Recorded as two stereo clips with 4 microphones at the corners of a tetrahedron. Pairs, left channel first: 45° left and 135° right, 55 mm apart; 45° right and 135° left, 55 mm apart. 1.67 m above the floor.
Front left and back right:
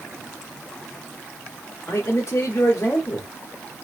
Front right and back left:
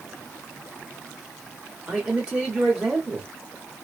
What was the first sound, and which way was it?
A man speaking, 65° left.